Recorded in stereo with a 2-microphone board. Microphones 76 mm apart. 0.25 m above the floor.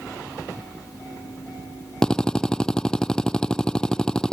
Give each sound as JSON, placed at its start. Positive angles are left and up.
{"t": 2.0, "sound": "a drill", "side_deg": 10}